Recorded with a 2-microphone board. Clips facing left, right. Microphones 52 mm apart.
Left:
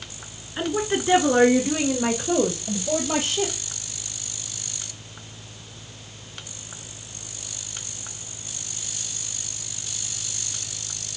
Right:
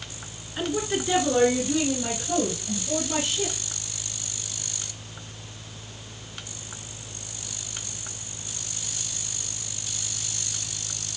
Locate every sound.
0.6 s a woman speaking: 15° left (ahead or behind), 1.5 m; by 3.5 s 55° left (ahead or behind), 3.5 m